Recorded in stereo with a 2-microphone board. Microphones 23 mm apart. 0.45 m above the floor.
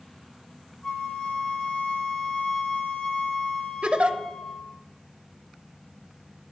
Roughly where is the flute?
Left.